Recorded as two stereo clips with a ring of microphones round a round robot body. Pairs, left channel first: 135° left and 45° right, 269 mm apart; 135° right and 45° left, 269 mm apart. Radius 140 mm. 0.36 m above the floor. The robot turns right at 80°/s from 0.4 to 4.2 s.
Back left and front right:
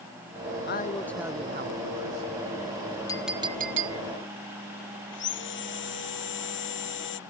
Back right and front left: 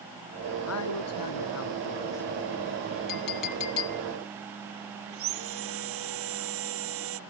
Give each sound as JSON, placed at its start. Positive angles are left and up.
{"t": 0.7, "sound": "a man speaking", "azimuth_deg": -175}
{"t": 3.1, "sound": "a clink", "azimuth_deg": -150}
{"t": 5.1, "sound": "sawing", "azimuth_deg": 85}